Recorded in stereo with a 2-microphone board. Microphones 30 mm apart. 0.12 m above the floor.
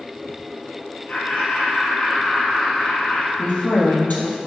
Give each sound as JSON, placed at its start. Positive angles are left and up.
{"t": 1.1, "sound": "laughter", "side_deg": 60, "distance_m": 3.5}
{"t": 3.4, "sound": "a woman speaking", "side_deg": 65, "distance_m": 3.0}